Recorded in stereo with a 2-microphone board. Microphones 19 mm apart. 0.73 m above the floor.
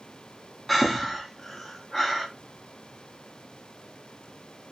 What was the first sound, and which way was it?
Breathing, 5° left (ahead or behind).